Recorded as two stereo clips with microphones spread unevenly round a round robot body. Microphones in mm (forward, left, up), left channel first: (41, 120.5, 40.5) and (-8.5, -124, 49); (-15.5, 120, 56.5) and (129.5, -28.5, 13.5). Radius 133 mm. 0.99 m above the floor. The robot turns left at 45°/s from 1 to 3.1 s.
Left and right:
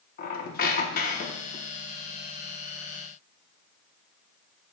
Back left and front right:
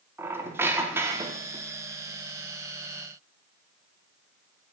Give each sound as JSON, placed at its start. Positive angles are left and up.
{"t": 0.2, "sound": "a squeak", "azimuth_deg": 45, "distance_m": 0.5}